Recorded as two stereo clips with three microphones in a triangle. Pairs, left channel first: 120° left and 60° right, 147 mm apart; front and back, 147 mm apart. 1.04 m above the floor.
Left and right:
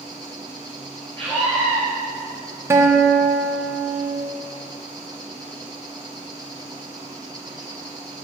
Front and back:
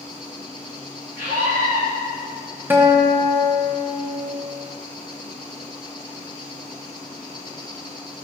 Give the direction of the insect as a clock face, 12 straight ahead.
1 o'clock.